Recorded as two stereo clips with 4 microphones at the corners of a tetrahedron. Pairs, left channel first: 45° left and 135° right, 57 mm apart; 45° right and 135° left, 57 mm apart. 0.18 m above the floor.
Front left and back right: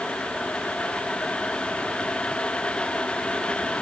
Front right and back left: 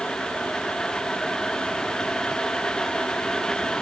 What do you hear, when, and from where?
Only background noise.